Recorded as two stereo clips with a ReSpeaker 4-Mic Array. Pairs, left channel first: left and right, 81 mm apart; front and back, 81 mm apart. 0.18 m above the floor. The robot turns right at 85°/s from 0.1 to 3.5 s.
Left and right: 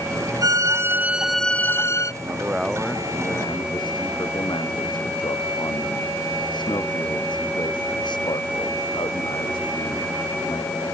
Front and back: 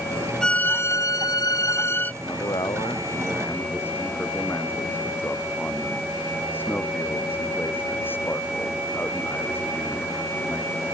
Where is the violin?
80° right; by 2.1 s 65° left.